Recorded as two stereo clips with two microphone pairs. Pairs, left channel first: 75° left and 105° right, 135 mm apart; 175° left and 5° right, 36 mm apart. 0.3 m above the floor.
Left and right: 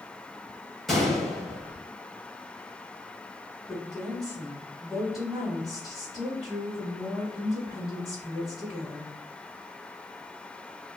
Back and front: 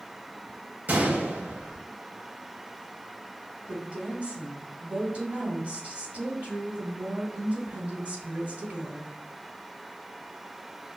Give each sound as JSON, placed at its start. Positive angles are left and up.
{"t": 0.9, "sound": "a gunshot", "azimuth_deg": -15, "distance_m": 0.7}
{"t": 3.7, "sound": "a woman speaking", "azimuth_deg": -20, "distance_m": 2.0}